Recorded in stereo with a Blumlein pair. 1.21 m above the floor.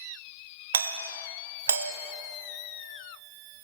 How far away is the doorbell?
About 1.2 m.